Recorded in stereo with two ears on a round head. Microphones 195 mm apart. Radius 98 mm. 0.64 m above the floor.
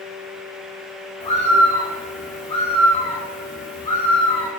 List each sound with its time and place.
1.2 s a bird: 20° left (ahead or behind), 1.6 m